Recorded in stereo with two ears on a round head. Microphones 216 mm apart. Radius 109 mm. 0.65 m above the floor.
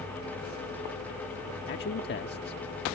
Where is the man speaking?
45° left (ahead or behind).